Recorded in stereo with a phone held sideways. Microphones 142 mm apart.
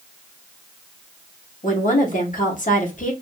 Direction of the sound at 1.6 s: 60° left (ahead or behind).